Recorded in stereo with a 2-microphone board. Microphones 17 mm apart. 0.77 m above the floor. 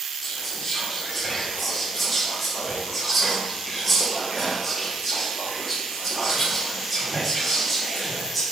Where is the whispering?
5° right (ahead or behind), 1.7 m.